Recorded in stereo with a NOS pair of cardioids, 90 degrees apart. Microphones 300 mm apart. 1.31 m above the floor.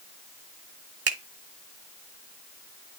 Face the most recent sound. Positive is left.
turn(degrees=-50)